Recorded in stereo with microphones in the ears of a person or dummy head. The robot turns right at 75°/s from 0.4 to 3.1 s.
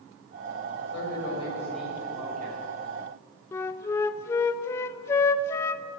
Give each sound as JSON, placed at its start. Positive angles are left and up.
{"t": 0.8, "sound": "a man speaking", "azimuth_deg": 105, "distance_m": 6.5}
{"t": 3.5, "sound": "a flute", "side_deg": 20, "distance_m": 0.5}